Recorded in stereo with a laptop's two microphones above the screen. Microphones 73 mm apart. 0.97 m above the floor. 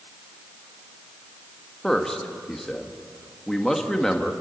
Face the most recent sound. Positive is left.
turn(degrees=5)  # may be behind; listen again after turning